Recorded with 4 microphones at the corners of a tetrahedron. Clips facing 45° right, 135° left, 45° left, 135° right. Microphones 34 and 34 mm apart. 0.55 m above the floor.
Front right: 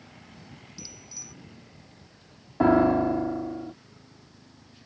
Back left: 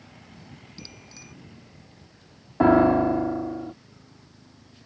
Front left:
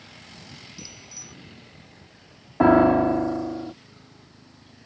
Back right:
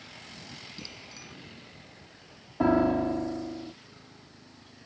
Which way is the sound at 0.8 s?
175° left.